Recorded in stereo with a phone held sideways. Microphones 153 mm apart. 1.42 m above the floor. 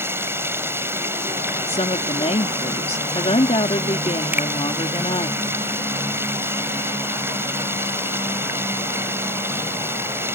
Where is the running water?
15° right (ahead or behind).